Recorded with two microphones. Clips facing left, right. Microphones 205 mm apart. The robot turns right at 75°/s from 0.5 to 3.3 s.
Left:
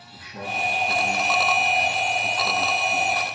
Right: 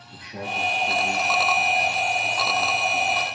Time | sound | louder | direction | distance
0.1 | a man speaking | right 1 dB | 65° right | 6 m